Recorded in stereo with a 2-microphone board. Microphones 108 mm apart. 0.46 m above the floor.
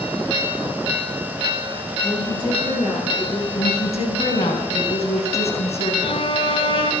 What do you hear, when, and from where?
2.0 s a woman speaking: 45° left (ahead or behind), 8 m
3.5 s a woman speaking: 75° left (ahead or behind), 4 m
6.0 s a violin: 55° left (ahead or behind), 1.1 m